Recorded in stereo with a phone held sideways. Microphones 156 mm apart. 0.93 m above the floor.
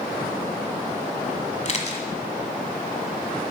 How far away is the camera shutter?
About 1.3 m.